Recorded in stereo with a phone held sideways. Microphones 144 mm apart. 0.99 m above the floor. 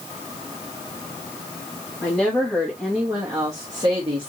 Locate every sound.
2.0 s a woman speaking: 10° left (ahead or behind), 1.5 m; by 4.3 s 40° right (ahead or behind), 1.4 m